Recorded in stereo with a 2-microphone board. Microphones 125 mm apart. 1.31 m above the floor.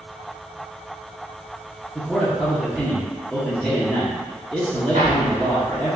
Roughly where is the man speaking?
Centre.